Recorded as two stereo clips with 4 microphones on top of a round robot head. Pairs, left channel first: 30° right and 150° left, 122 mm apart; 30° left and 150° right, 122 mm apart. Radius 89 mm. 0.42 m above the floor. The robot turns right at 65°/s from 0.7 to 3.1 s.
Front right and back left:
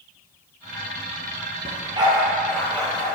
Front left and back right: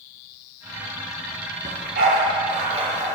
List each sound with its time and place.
1.6 s a dog barking: 175° right, 2.5 m; by 3.2 s 80° right, 2.5 m